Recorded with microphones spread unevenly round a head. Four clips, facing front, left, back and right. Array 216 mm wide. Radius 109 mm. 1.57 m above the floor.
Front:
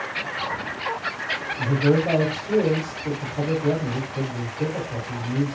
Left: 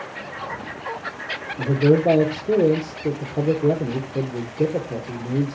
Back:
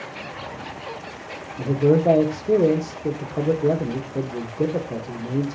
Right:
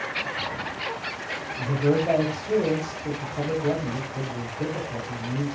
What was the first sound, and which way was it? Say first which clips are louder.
A man speaking: left 6 dB, back 3 dB; 130° left.